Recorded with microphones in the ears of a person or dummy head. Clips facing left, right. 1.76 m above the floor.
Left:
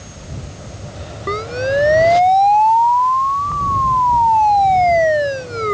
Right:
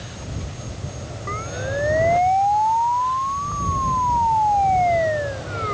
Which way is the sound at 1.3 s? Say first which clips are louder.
Left 10 dB; 80° left.